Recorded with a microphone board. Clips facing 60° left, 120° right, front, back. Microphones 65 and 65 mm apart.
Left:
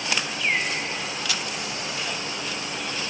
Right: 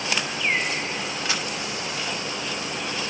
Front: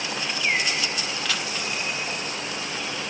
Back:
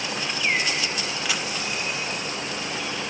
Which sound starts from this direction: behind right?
A camera shutter, at 1.2 s.